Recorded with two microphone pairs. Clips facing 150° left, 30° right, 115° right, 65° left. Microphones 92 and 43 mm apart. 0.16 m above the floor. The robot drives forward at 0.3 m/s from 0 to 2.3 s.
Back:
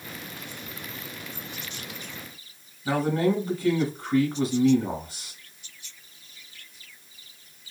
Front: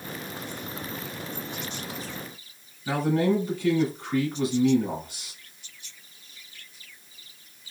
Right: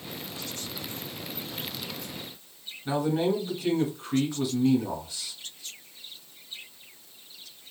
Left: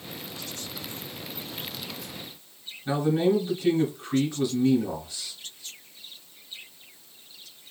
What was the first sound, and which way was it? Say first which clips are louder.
A man speaking: even, left 2 dB; 160° left.